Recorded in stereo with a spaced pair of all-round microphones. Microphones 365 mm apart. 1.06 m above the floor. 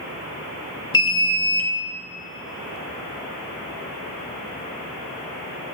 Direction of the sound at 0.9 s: 35° left (ahead or behind).